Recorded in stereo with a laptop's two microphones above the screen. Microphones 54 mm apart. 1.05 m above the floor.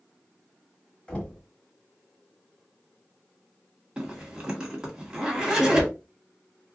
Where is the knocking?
20° left (ahead or behind), 1.4 m.